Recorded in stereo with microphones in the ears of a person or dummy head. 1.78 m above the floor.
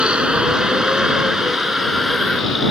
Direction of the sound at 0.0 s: 10° right (ahead or behind).